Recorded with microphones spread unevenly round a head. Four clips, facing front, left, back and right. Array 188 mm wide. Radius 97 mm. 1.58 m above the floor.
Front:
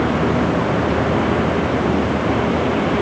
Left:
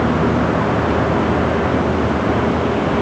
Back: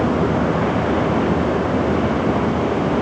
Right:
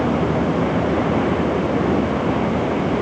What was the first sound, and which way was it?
Only background noise.